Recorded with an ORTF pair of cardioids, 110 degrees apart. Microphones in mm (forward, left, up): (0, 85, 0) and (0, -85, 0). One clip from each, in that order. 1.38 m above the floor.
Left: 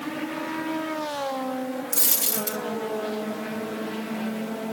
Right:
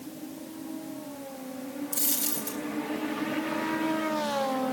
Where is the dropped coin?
30° left, 3 m.